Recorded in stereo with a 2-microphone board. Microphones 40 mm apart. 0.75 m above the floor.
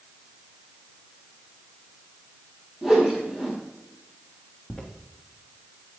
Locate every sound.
2.8 s a whoosh: 10° right (ahead or behind), 3.5 m
4.7 s footsteps: 10° left (ahead or behind), 3 m